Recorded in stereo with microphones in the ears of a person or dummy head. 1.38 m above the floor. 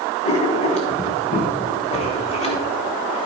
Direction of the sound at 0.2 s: 30° left (ahead or behind).